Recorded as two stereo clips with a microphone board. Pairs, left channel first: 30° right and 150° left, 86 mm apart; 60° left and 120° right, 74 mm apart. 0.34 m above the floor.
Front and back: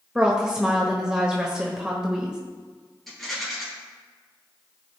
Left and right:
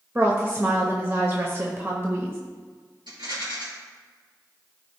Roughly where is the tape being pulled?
No tape being pulled in this recording.